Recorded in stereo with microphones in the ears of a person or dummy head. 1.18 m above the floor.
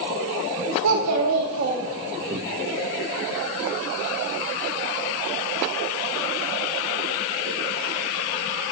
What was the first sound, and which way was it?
A child speaking, 90° right.